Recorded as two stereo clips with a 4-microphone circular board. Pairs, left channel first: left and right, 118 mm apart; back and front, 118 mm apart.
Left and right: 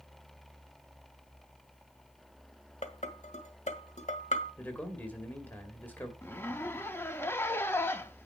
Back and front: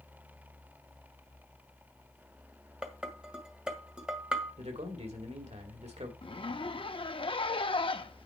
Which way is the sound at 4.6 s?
15° left.